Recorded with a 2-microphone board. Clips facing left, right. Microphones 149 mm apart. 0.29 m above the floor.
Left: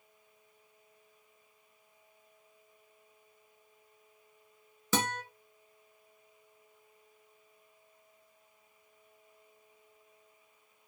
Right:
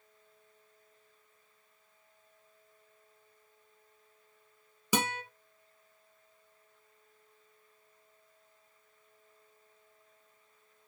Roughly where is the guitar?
Centre.